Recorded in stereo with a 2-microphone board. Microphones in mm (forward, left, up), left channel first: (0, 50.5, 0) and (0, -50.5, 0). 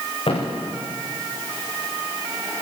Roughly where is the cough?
No cough in this recording.